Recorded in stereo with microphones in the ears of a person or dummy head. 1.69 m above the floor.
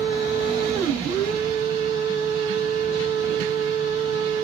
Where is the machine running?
10° left (ahead or behind), 1.8 m.